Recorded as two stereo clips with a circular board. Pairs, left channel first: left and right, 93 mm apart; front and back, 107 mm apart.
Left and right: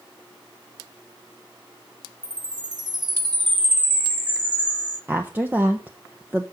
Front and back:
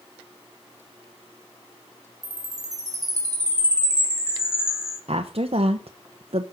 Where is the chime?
125° right, 3.5 m.